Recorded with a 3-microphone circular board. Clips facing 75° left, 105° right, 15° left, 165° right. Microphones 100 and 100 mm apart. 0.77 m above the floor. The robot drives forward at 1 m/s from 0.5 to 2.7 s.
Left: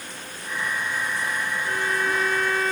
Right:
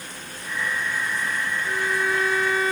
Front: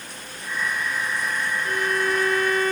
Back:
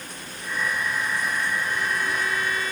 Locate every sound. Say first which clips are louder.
1.6 s a violin: right 1 dB, front 3 dB; 20° right